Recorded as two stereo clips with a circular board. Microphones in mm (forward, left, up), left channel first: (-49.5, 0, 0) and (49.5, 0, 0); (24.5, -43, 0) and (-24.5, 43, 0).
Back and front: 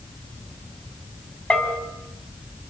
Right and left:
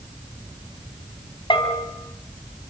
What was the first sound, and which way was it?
A bell, 100° right.